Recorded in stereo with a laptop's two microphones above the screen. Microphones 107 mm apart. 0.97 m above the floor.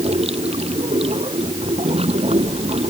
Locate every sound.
0.0 s running water: 70° right (ahead or behind)